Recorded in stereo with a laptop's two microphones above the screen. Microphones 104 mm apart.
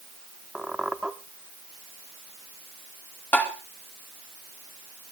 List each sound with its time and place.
0.6 s a squeak: 5° right (ahead or behind), 0.9 m
3.3 s tapping: 15° left (ahead or behind), 1.9 m